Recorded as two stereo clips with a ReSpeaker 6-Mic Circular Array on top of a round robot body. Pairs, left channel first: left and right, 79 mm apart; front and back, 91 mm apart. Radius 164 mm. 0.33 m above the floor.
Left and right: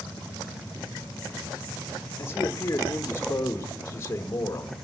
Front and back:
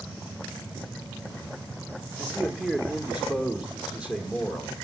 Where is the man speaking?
110° left, 1.1 m.